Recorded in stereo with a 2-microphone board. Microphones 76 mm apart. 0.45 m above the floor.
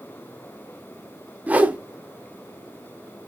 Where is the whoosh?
20° right (ahead or behind), 0.5 m.